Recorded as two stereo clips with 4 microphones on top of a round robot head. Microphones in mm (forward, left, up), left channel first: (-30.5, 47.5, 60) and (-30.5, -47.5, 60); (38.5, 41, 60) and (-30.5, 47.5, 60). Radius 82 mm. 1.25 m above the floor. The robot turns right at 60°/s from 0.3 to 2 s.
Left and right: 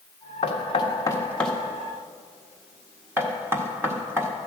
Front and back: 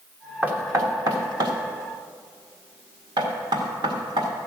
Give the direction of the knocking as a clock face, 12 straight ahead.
8 o'clock.